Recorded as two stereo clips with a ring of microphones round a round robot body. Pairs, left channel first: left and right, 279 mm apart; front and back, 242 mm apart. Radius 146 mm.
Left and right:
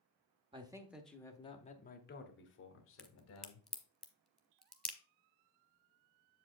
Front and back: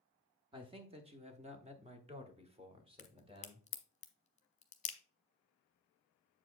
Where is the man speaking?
135° right, 1.2 m; by 3.6 s 115° left, 2.5 m.